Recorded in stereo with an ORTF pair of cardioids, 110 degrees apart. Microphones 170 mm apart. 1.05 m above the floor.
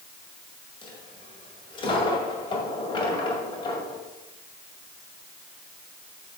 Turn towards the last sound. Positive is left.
turn(degrees=30)